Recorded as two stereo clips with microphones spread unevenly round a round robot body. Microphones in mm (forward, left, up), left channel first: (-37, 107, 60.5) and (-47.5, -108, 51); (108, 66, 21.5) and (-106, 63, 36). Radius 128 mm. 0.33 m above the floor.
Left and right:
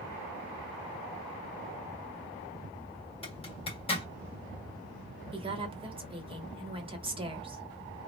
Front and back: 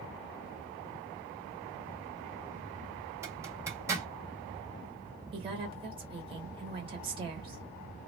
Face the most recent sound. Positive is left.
turn(degrees=-130)